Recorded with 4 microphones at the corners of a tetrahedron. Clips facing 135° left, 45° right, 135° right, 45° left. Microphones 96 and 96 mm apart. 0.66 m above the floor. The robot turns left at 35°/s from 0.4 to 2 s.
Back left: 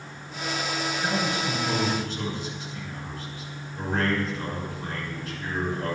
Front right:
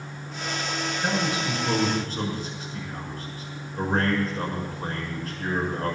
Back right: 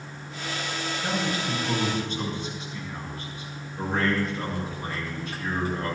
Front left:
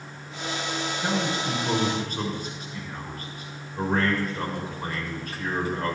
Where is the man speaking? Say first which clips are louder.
Front right 2 dB, front left 1 dB; 40° left, 6.5 m; by 6.0 s 5° left, 6.5 m.